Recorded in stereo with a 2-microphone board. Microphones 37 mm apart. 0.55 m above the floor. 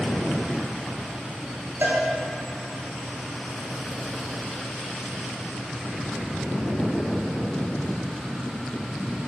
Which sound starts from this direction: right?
A cowbell, at 1.8 s.